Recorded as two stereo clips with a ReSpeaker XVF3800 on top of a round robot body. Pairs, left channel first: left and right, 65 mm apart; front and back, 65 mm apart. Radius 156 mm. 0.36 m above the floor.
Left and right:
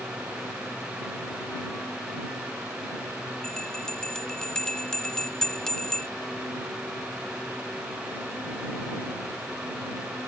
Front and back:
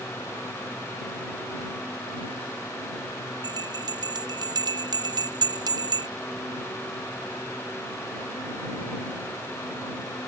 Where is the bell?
170° left.